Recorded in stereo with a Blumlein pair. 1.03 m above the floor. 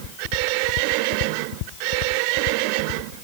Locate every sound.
Only background noise.